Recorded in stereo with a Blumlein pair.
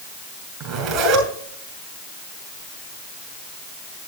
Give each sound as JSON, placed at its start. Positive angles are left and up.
{"t": 0.6, "sound": "a zipper", "azimuth_deg": -35, "distance_m": 5.5}